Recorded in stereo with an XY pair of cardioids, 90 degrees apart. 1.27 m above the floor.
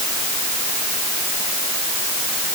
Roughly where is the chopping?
No chopping in this recording.